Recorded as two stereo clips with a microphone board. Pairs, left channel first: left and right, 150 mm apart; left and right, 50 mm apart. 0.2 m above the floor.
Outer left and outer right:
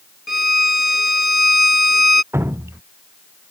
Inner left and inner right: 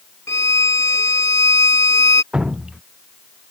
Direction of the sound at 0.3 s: 80° left.